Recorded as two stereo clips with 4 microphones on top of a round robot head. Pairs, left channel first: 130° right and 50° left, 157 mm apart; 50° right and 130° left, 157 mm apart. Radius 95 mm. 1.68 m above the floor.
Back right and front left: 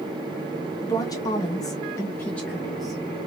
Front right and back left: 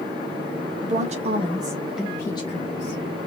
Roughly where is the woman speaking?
Behind.